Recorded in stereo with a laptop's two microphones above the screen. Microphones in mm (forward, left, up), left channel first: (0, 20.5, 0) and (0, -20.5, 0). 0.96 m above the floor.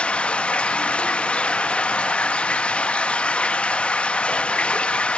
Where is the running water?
30° left (ahead or behind), 0.9 m.